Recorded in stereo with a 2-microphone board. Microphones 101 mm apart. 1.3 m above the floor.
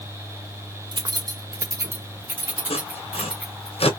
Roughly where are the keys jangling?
Right.